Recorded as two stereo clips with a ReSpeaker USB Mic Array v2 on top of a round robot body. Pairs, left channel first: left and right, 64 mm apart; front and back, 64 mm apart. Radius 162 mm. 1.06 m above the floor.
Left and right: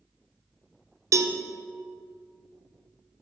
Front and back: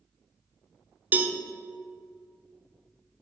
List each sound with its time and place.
1.1 s a cowbell: 120° right, 0.9 m